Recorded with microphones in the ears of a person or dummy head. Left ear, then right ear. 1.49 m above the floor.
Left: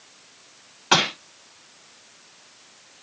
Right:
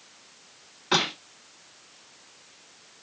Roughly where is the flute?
I don't hear a flute.